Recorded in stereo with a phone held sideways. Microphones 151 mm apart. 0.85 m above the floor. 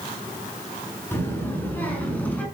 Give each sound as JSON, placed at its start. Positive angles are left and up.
{"t": 1.1, "sound": "a child speaking", "side_deg": 15, "distance_m": 5.5}